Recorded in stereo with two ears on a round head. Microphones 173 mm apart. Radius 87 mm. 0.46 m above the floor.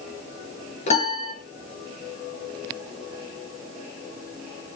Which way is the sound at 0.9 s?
35° left (ahead or behind).